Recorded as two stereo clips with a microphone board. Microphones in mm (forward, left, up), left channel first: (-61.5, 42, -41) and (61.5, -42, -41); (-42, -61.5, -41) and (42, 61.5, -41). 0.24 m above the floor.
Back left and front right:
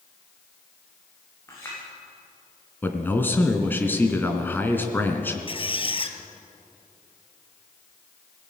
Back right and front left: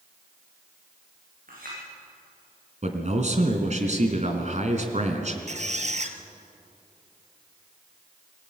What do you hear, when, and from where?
1.5 s a clink: 75° left, 9.5 m
2.8 s a man speaking: 70° left, 2.5 m
5.5 s a squeak: 95° left, 1.5 m